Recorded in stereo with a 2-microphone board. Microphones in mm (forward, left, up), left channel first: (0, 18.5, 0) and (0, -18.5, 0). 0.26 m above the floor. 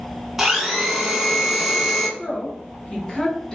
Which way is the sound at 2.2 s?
20° left (ahead or behind).